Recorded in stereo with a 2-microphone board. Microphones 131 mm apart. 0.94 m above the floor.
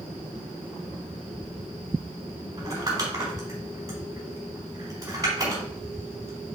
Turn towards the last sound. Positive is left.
turn(degrees=-25)  # may be behind; listen again after turning